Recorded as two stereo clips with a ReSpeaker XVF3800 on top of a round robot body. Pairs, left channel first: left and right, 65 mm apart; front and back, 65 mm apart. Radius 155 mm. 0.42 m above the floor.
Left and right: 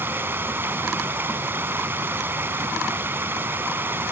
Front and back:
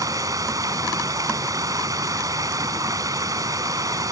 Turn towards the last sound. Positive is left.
turn(degrees=-150)